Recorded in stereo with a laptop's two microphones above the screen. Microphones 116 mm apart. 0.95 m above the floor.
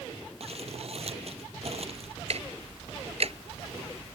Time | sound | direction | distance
0.4 | crumpling | 60° right (ahead or behind) | ?
2.3 | ticking | 60° right (ahead or behind) | ?